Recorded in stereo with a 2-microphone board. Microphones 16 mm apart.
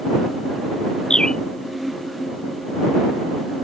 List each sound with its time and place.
1.1 s a bird: 65° left (ahead or behind)